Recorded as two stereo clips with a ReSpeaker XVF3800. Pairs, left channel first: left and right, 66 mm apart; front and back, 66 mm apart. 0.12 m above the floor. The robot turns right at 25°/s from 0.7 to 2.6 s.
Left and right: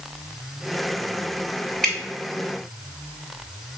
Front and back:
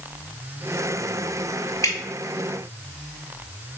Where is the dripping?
10° left, 0.9 m; by 2.0 s 15° left, 0.9 m.